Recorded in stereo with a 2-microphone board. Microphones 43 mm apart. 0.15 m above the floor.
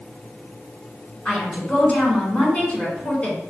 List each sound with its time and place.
1.2 s a woman speaking: 30° left (ahead or behind), 1.7 m